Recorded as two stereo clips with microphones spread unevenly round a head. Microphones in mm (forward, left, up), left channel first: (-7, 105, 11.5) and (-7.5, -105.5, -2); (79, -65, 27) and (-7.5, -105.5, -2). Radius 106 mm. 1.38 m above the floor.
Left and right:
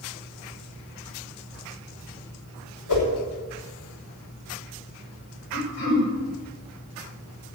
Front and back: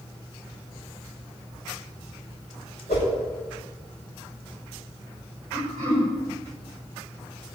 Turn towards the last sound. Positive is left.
turn(degrees=135)